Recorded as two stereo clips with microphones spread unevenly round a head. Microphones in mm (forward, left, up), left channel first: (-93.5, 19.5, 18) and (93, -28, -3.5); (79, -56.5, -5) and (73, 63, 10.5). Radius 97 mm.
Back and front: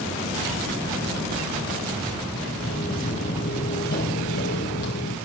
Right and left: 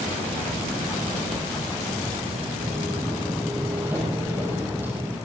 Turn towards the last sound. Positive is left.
turn(degrees=165)